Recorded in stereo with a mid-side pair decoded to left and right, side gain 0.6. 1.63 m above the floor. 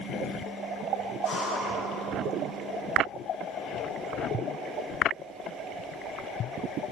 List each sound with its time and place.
1.2 s breathing: 55° left, 1.5 m